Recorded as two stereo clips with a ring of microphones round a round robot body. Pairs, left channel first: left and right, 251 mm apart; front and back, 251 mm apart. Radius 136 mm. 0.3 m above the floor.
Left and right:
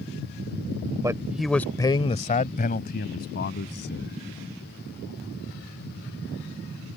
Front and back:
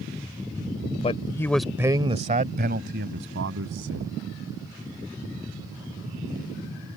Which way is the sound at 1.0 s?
30° right.